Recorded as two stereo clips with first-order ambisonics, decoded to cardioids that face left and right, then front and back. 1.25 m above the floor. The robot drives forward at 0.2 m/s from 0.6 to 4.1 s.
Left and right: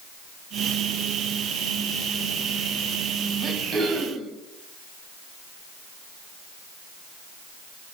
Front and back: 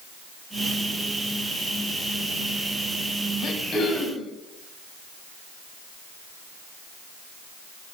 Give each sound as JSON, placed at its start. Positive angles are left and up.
{"t": 3.4, "sound": "throat clearing", "azimuth_deg": -30, "distance_m": 0.9}